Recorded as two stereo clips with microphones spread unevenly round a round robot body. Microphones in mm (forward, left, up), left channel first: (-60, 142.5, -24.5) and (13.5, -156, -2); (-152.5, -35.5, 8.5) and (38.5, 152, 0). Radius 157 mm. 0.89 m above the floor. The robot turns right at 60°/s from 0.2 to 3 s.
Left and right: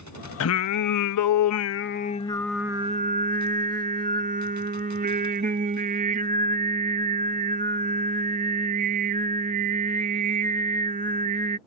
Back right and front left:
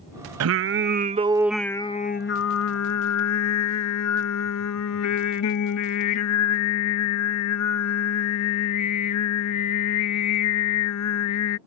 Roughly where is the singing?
Ahead left.